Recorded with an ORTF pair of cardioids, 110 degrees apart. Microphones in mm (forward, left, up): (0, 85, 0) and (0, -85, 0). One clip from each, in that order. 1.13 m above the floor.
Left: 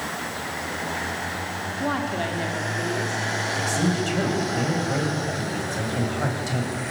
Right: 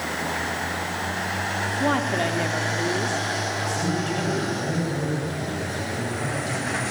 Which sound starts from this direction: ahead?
A woman speaking, at 1.8 s.